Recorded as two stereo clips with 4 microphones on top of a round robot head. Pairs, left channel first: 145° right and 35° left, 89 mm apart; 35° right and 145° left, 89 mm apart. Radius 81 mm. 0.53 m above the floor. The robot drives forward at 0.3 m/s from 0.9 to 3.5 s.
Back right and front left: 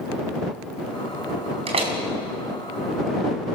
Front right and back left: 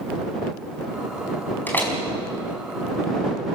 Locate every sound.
1.7 s a door slam: 35° left, 4 m